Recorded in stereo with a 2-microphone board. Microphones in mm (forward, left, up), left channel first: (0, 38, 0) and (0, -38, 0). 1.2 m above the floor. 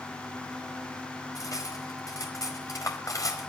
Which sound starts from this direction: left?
Cutlery clinking, at 1.4 s.